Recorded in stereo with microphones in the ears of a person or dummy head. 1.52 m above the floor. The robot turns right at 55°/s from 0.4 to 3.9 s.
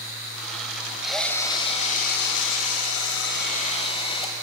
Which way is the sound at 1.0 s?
5° right.